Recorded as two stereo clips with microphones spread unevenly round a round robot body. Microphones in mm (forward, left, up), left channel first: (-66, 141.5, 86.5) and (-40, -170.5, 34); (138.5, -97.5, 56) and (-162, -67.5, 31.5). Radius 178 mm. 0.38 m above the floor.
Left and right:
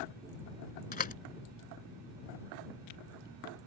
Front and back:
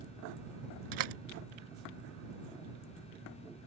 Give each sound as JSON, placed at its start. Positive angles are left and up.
{"t": 0.9, "sound": "a door slam", "azimuth_deg": 160}